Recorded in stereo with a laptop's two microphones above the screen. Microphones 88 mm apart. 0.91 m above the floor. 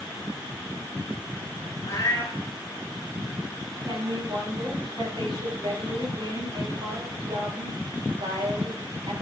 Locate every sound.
1.9 s a cat meowing: 40° left (ahead or behind), 1.5 m
3.8 s a woman speaking: 55° right (ahead or behind), 4.5 m